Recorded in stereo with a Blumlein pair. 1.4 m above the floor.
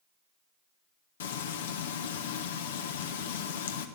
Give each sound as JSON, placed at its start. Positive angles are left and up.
{"t": 1.2, "sound": "frying", "azimuth_deg": 60, "distance_m": 1.1}